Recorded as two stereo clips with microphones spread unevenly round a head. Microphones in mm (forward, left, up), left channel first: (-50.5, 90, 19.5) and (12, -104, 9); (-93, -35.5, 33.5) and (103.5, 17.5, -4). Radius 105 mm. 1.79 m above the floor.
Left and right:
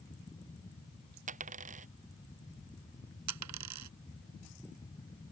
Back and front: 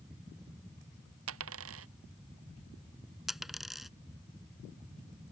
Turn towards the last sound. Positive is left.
turn(degrees=-75)